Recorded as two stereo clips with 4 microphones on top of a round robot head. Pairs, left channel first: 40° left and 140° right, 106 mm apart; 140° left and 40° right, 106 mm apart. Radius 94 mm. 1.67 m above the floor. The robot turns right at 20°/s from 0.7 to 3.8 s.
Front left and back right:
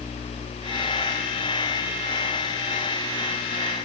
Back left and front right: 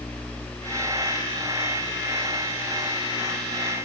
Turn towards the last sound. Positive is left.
No sound to turn to.